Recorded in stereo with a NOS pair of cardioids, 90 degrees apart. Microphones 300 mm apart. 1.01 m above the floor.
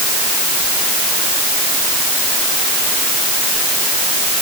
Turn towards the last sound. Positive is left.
No sound to turn to.